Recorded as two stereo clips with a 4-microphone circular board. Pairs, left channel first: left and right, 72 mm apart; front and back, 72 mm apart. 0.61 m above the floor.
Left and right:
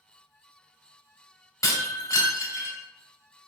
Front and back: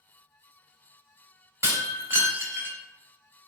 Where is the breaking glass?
130° left, 1.0 m.